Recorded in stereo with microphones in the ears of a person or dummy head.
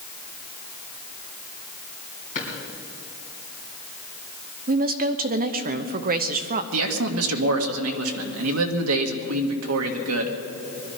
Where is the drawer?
35° left (ahead or behind), 3 m.